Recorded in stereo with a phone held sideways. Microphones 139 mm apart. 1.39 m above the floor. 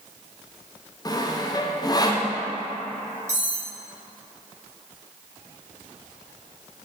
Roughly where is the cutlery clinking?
Right.